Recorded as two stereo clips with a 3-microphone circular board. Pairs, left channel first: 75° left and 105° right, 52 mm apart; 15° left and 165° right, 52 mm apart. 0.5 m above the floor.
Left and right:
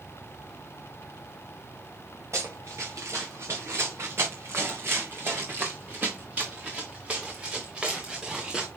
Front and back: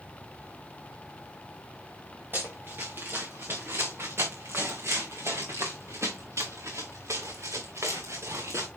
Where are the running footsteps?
120° right, 3.5 m; by 8.7 s straight behind, 3.5 m.